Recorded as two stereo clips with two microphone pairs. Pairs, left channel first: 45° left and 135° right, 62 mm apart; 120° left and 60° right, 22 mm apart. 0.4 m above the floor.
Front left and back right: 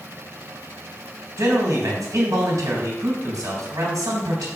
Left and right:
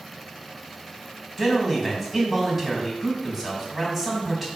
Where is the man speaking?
140° right, 3 m.